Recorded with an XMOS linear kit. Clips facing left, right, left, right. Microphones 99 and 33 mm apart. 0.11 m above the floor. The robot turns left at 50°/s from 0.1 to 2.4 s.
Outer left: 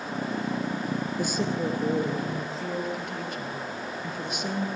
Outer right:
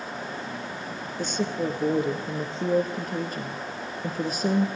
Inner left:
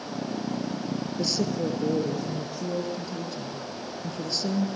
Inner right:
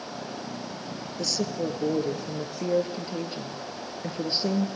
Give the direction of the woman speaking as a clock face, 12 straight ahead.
12 o'clock.